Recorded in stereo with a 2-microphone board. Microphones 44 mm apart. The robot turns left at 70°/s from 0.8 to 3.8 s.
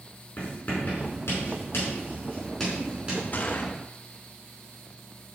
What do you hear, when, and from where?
0.4 s writing: 45° left (ahead or behind), 5 m; by 3.2 s 35° right (ahead or behind), 5 m
3.3 s a gunshot: 40° left (ahead or behind), 1.2 m; by 3.7 s 35° left (ahead or behind), 1.2 m